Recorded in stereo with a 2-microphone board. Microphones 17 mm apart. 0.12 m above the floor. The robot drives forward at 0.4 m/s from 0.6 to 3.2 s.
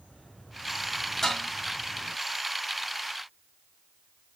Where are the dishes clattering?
25° left (ahead or behind), 2.0 m.